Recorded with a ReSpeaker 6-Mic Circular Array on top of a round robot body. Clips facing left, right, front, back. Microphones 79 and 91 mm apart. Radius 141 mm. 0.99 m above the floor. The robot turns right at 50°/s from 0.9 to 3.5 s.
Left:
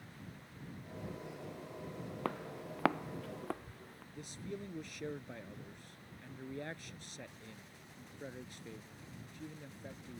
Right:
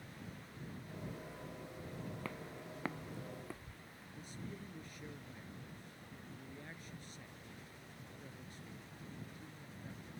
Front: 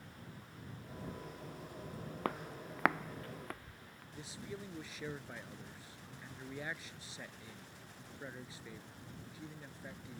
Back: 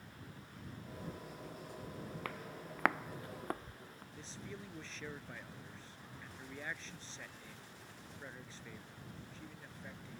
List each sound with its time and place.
2.2 s footsteps: 55° left; by 4.0 s 125° left
4.1 s a man speaking: 80° left